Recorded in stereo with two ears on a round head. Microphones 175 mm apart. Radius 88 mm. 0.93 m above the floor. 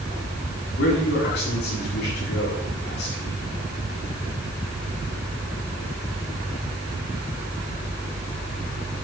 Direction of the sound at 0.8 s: 55° left (ahead or behind).